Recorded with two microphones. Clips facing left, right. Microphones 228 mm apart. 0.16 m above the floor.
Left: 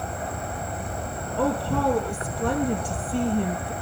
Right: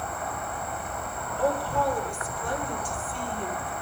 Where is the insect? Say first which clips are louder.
Left 3 dB; 30° left (ahead or behind), 1.4 m.